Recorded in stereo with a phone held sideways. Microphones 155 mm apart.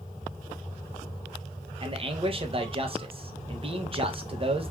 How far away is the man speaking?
About 0.6 m.